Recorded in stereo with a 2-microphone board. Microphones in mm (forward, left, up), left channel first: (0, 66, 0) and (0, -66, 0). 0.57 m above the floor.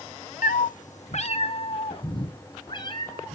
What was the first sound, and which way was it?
A cat meowing, 75° left (ahead or behind).